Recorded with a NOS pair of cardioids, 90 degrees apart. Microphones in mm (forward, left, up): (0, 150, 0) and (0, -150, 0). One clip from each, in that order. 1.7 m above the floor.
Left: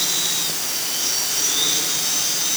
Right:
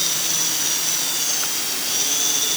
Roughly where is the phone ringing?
I don't hear a phone ringing.